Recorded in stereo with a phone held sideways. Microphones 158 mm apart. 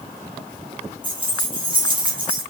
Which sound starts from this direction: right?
Keys jangling, at 1.0 s.